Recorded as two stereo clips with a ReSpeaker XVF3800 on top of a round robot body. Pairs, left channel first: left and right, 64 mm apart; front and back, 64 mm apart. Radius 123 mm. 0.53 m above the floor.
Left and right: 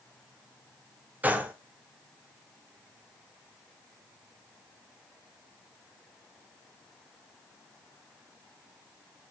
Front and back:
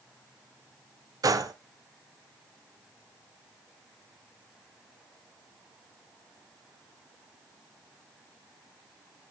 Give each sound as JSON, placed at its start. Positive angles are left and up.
{"t": 1.2, "sound": "a gunshot", "azimuth_deg": -155, "distance_m": 1.0}